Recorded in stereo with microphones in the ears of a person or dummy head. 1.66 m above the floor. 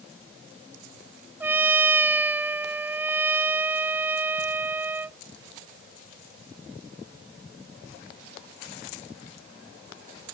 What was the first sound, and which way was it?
A trumpet, 15° right (ahead or behind).